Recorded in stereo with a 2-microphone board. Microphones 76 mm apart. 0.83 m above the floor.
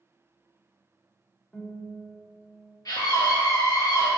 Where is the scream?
55° left (ahead or behind), 1.0 m.